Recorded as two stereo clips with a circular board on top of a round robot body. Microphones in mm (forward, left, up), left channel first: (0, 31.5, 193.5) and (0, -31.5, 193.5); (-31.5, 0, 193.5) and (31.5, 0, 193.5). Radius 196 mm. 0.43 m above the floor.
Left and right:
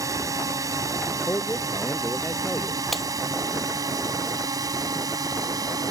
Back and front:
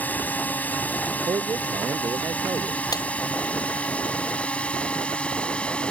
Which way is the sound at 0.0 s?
115° right.